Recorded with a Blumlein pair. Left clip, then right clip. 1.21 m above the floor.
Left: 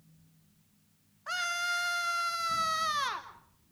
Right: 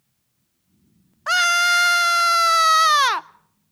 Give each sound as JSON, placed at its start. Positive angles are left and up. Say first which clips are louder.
{"t": 1.3, "sound": "a scream", "louder": "right 15 dB", "azimuth_deg": -35, "distance_m": 0.5}